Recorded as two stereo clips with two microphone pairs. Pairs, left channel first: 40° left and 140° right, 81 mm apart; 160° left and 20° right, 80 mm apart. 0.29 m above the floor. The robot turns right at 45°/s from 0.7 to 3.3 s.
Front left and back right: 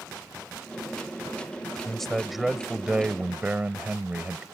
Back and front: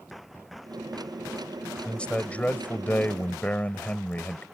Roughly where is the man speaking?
Left.